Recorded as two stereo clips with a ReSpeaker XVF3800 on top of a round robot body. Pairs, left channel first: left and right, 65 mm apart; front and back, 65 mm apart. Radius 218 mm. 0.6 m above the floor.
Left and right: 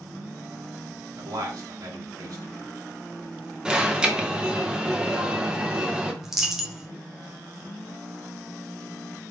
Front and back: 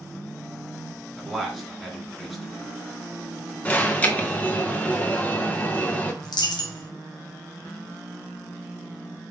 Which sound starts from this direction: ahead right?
An alarm, at 3.6 s.